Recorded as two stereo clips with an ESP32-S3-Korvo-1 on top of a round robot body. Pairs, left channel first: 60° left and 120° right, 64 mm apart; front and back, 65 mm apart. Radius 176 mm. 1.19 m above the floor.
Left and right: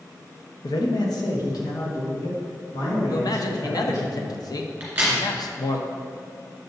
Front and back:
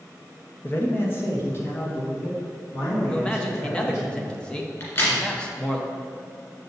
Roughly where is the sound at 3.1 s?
Left.